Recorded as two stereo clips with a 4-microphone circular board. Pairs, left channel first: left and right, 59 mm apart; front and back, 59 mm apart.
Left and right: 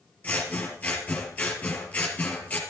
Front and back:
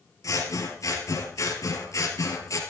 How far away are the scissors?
About 3.5 m.